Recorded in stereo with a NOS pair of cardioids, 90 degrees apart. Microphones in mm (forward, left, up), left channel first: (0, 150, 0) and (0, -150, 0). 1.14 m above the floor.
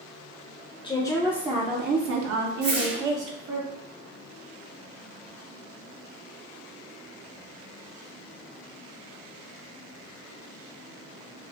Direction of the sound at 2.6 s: 60° right.